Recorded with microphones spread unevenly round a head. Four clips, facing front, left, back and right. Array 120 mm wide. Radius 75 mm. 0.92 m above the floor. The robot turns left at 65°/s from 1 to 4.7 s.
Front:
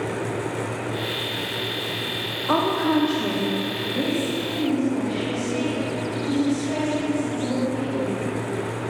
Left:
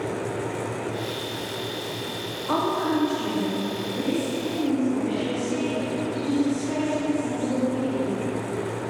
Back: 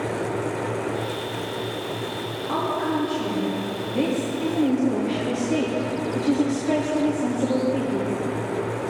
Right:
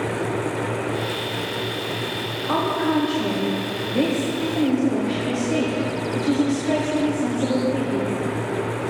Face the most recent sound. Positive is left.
turn(degrees=-140)